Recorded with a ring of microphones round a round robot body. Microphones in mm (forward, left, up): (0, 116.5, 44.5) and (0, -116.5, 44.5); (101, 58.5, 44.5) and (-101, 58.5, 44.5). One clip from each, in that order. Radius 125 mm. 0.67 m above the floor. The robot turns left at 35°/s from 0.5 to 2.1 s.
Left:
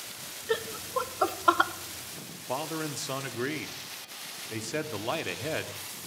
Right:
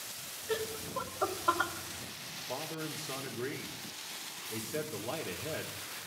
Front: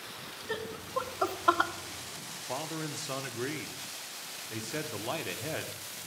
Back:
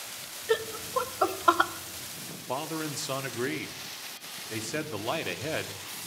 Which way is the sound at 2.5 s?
115° left.